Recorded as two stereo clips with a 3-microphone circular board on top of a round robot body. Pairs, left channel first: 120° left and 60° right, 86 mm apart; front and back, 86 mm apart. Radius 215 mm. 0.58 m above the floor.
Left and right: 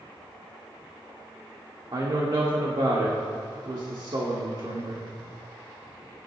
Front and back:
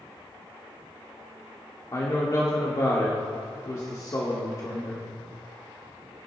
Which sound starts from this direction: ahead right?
A woman speaking, at 1.9 s.